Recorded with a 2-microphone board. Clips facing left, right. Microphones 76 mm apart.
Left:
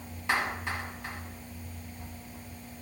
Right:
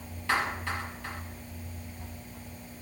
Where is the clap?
20° left (ahead or behind), 9 m.